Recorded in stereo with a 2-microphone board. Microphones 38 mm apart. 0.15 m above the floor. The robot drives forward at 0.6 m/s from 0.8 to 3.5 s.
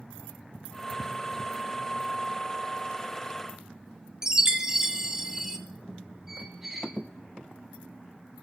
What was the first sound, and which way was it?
A chime, 15° right (ahead or behind).